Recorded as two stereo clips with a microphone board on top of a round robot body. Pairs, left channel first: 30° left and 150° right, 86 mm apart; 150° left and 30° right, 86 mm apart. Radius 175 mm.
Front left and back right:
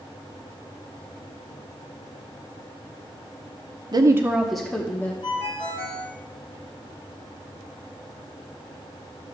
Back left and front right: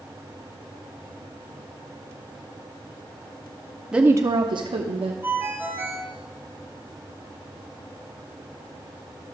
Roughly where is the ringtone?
Ahead left.